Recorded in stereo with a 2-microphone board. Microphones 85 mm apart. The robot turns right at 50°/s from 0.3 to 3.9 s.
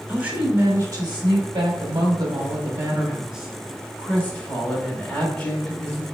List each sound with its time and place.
0.1 s a woman speaking: 160° right, 1.3 m; by 6.0 s 20° left, 1.3 m